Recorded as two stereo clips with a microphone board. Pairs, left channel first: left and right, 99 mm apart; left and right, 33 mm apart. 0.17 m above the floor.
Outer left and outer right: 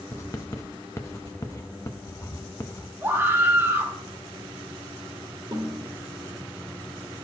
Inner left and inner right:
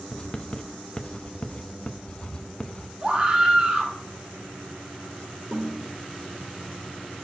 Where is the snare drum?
50° right (ahead or behind), 2.5 m.